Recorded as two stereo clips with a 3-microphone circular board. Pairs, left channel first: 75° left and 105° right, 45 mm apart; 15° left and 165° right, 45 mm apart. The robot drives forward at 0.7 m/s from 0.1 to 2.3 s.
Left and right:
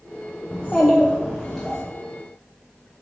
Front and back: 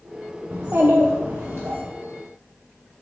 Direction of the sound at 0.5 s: 140° left.